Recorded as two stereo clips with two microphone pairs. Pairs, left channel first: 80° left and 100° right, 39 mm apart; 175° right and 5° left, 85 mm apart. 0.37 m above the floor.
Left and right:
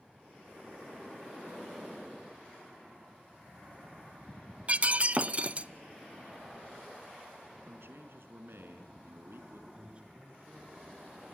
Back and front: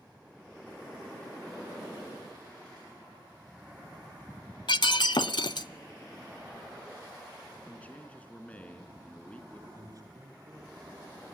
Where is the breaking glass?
155° right, 0.6 m.